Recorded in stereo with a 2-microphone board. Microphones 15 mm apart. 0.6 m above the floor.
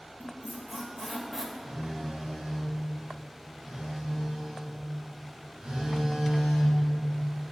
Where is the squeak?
10° right (ahead or behind), 1.3 m.